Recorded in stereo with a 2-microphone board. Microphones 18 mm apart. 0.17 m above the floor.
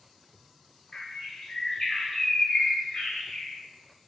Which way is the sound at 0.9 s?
35° left (ahead or behind).